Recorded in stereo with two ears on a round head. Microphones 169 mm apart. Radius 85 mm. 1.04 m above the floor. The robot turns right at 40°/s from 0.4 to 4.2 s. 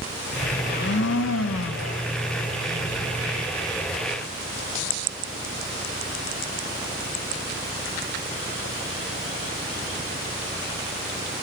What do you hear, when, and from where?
0.6 s a blender: 50° left, 0.6 m; by 2.0 s 105° left, 0.6 m